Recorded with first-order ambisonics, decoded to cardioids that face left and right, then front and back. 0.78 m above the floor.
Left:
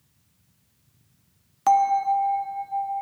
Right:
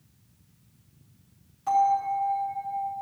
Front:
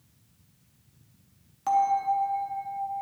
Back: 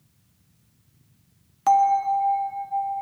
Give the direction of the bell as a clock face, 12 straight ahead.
8 o'clock.